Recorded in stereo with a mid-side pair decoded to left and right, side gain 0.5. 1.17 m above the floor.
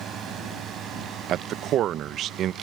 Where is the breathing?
No breathing in this recording.